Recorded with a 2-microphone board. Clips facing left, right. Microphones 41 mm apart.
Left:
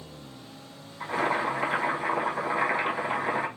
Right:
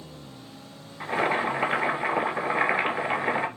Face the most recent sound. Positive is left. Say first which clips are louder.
# right 2 dB
turn(degrees=-30)  # may be behind; listen again after turning